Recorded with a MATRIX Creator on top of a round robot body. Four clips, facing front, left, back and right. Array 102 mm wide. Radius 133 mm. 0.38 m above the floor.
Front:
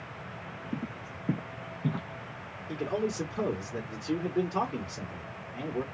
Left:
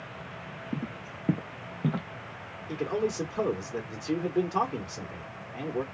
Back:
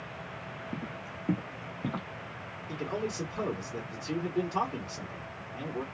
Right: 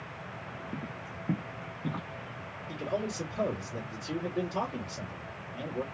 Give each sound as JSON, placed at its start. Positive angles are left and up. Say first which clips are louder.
{"t": 0.7, "sound": "footsteps", "louder": "left 7 dB, front 4 dB", "azimuth_deg": 70, "distance_m": 0.8}
{"t": 2.7, "sound": "a man speaking", "louder": "left 5 dB, front 3 dB", "azimuth_deg": 75, "distance_m": 1.6}